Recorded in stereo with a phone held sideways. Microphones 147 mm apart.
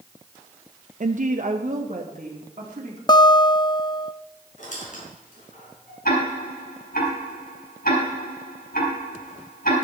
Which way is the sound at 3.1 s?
30° left (ahead or behind).